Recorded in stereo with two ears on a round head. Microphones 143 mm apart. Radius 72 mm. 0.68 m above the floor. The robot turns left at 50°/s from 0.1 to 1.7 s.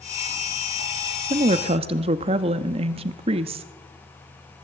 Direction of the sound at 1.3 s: 40° right (ahead or behind).